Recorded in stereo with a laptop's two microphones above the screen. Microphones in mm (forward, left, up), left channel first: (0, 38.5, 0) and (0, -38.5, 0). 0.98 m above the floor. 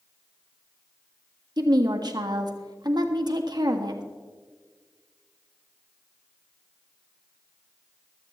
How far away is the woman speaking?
About 1.6 m.